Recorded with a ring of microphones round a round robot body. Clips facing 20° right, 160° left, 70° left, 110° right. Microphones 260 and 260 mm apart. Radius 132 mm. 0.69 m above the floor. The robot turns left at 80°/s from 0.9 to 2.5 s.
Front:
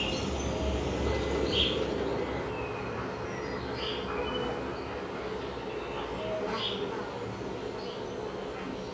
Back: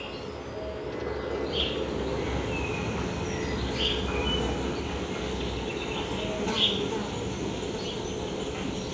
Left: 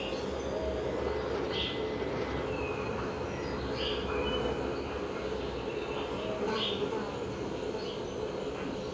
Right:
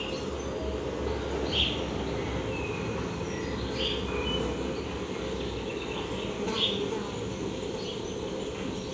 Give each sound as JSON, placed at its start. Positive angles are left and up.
{"t": 0.0, "sound": "an insect", "azimuth_deg": -40, "distance_m": 1.8}